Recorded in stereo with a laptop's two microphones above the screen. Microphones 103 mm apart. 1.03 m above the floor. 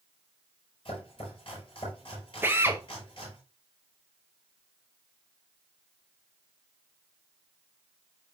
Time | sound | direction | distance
0.8 | chopping | 55° left (ahead or behind) | 6 m
2.4 | a drill | 20° right (ahead or behind) | 0.8 m